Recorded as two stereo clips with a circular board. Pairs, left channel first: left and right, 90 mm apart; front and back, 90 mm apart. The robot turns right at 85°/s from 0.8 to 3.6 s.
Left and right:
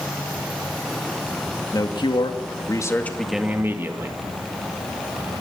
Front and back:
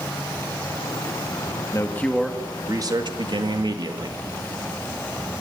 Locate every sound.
1.7 s a man speaking: 45° left, 1.8 m; by 4.2 s 155° right, 1.8 m